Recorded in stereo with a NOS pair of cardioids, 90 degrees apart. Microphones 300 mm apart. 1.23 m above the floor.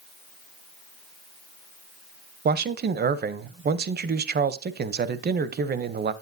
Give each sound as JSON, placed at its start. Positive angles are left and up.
{"t": 2.5, "sound": "a man speaking", "azimuth_deg": -35, "distance_m": 0.6}